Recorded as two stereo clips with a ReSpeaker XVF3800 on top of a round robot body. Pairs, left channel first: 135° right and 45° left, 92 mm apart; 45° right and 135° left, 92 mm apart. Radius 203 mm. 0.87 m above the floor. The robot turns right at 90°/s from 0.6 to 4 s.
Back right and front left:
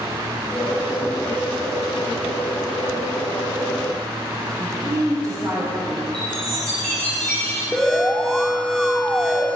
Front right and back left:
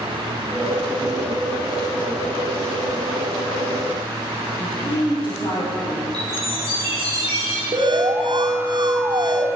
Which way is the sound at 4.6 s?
10° right.